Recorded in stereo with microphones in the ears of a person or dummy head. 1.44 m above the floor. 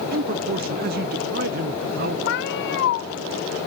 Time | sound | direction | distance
0.1 | a man speaking | 50° right (ahead or behind) | 0.9 m
2.3 | a cat meowing | 55° left (ahead or behind) | 1.0 m